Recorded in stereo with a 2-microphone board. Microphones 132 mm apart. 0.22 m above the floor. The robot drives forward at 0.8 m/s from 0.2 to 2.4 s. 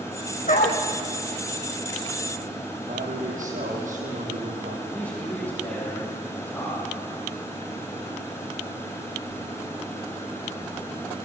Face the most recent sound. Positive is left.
turn(degrees=10)  # may be behind; listen again after turning